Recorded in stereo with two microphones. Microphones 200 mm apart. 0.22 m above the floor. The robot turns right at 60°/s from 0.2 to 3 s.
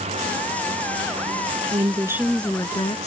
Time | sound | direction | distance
1.7 | a woman speaking | 35° right | ?